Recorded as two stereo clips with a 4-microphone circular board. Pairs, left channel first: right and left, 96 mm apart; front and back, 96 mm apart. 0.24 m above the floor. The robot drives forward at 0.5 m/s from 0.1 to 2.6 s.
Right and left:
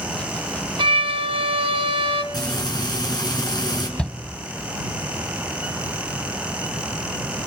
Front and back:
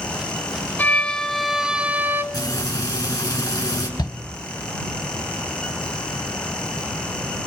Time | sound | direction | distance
0.8 | a violin | 70° left | 1.1 m
2.3 | frying | 45° right | 3.5 m
4.0 | a shout | 15° right | 1.2 m